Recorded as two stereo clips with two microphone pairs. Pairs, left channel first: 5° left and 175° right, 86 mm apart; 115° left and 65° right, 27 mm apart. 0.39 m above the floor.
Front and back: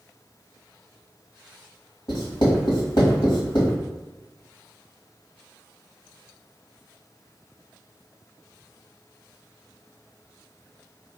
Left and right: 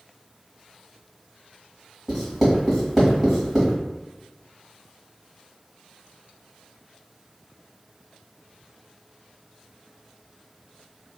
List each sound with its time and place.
2.1 s writing: 15° left, 1.4 m